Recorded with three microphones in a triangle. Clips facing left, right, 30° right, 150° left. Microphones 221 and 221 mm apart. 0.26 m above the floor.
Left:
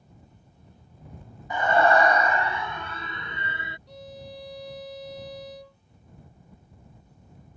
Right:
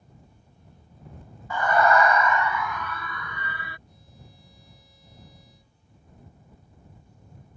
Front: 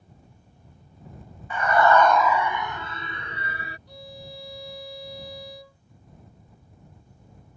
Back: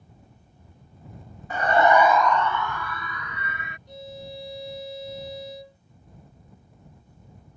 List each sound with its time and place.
1.5 s a scream: 150° left; by 3.8 s 25° left
3.9 s a violin: 80° left